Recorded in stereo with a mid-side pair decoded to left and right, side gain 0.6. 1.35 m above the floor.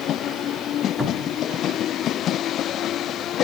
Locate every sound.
1.0 s a cupboard door: 15° left, 2.5 m